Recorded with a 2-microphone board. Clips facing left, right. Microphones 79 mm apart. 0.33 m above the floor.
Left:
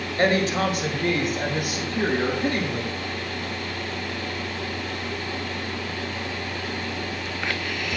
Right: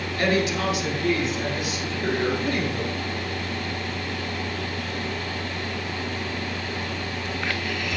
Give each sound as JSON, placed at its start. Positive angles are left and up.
{"t": 0.2, "sound": "a woman speaking", "side_deg": 35, "distance_m": 1.7}